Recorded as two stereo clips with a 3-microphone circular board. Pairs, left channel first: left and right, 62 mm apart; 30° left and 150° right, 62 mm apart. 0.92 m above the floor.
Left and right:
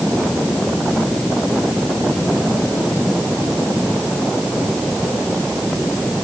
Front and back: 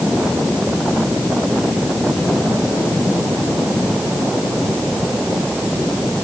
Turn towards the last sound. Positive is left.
No sound to turn to.